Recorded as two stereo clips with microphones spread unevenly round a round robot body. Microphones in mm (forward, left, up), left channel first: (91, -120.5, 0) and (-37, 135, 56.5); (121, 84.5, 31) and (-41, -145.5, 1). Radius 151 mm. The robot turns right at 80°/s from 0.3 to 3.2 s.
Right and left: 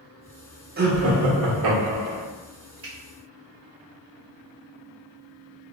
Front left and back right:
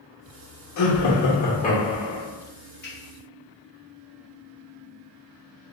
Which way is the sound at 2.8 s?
75° left.